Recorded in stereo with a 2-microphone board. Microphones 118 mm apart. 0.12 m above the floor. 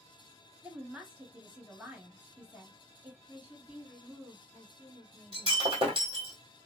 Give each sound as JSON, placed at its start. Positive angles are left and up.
{"t": 0.6, "sound": "a woman speaking", "side_deg": -10, "distance_m": 1.3}
{"t": 3.3, "sound": "a woman speaking", "side_deg": -15, "distance_m": 1.7}
{"t": 5.3, "sound": "breaking glass", "side_deg": -45, "distance_m": 1.5}